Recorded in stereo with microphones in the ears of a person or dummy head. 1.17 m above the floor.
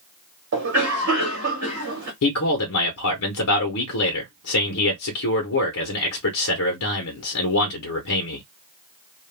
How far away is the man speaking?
About 0.8 m.